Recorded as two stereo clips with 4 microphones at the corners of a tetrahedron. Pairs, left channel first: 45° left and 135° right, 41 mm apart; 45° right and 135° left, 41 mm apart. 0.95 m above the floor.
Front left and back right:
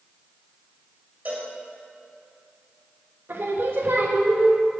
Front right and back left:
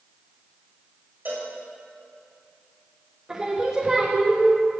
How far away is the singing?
About 1.1 m.